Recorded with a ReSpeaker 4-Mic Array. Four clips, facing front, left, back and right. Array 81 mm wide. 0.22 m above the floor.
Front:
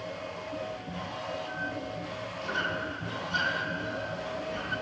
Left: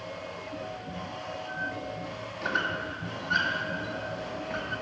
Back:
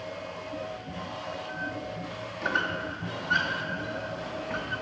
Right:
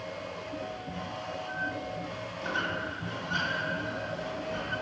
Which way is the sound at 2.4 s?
145° left.